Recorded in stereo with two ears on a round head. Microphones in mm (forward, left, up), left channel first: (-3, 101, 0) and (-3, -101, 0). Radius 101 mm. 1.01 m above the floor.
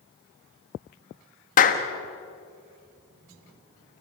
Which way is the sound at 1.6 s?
35° left (ahead or behind).